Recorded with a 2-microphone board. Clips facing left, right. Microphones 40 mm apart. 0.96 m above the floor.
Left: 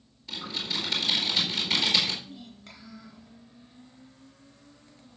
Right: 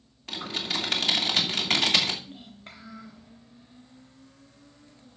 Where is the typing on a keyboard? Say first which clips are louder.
Right 2 dB; 55° right (ahead or behind), 2.5 m.